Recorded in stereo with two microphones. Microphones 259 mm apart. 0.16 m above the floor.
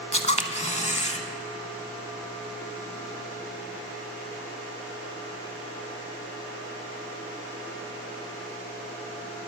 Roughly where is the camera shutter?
Left.